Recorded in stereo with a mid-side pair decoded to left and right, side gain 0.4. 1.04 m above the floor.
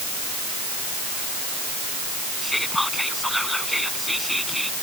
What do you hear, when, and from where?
2.4 s whispering: 5° left